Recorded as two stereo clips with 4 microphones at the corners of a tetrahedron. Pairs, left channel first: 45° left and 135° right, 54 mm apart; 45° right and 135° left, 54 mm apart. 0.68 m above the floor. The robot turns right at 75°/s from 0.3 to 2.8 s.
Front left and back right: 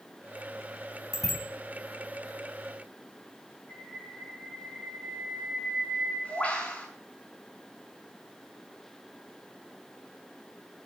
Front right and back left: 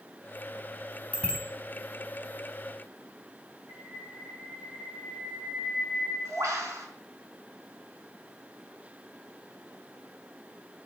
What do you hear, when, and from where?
1.1 s a bicycle bell: 15° left, 3.5 m; by 1.4 s 40° left, 3.5 m
3.7 s a bird: 115° left, 5.5 m